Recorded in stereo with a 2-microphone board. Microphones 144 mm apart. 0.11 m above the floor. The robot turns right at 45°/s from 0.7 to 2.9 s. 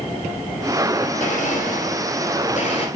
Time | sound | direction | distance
1.2 | a blender | 60° left | 2.5 m